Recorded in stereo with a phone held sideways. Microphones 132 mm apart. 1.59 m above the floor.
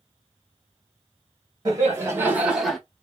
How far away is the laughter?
About 1.2 m.